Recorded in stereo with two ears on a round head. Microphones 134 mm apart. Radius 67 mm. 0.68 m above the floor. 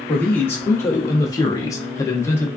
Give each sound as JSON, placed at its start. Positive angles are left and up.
{"t": 0.1, "sound": "a man speaking", "side_deg": 10, "distance_m": 1.0}